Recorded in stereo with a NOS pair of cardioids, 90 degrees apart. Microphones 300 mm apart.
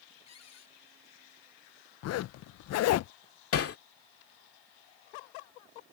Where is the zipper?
60° left.